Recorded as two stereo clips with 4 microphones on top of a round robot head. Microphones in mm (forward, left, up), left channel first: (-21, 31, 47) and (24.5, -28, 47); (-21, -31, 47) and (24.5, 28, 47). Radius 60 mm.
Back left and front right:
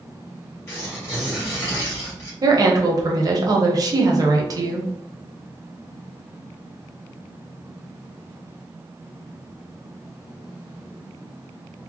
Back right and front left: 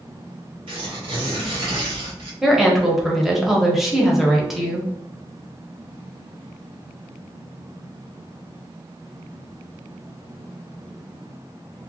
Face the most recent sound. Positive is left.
turn(degrees=-35)